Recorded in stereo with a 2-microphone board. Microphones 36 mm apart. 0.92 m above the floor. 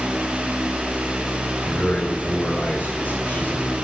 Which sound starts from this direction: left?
A man speaking, at 1.6 s.